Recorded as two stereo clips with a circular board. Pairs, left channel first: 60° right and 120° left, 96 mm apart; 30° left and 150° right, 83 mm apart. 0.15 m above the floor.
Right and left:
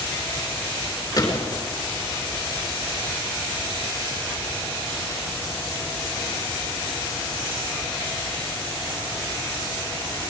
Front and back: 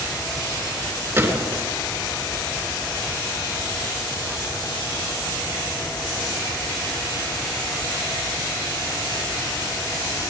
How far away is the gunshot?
About 3.5 m.